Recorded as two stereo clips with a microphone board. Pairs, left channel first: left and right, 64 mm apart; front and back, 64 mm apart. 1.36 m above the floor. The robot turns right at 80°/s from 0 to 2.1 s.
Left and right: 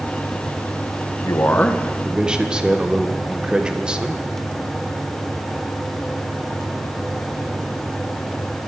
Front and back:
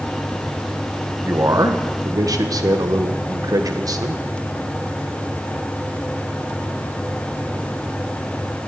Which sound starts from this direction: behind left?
A man speaking, at 1.2 s.